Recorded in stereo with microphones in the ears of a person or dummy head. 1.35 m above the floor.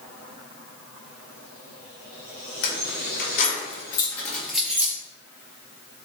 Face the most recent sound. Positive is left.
turn(degrees=-20)  # may be behind; listen again after turning